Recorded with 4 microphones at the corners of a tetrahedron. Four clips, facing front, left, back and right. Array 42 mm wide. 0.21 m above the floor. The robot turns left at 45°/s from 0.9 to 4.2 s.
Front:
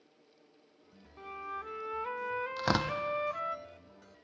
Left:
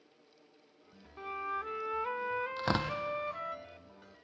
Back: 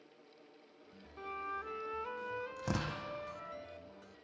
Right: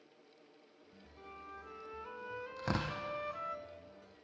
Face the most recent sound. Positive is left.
turn(degrees=-45)